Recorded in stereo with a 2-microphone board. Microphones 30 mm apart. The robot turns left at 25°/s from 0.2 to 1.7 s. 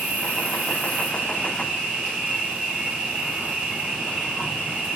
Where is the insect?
95° right, 2.5 m; by 5.0 s 135° right, 2.5 m.